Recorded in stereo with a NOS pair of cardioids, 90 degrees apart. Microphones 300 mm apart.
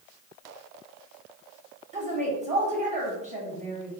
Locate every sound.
1.9 s a woman speaking: 20° right, 1.0 m